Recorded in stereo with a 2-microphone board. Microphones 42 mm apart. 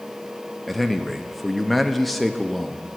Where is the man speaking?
Centre (ahead or behind), 0.7 m.